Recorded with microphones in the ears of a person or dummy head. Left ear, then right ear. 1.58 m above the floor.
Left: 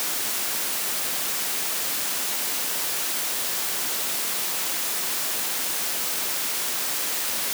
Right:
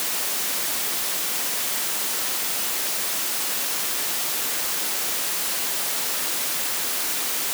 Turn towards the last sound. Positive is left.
No sound to turn to.